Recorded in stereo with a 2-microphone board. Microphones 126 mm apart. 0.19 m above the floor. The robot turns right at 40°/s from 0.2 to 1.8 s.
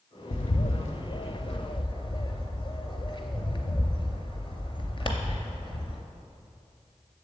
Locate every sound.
0.3 s a bird: 75° left (ahead or behind), 0.6 m; by 6.0 s 45° left (ahead or behind), 0.6 m